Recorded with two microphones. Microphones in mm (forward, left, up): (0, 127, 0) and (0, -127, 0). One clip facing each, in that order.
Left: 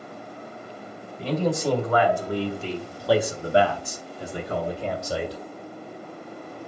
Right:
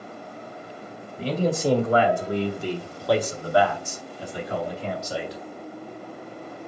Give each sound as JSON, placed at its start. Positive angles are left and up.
{"t": 1.2, "sound": "a man speaking", "side_deg": -35, "distance_m": 1.9}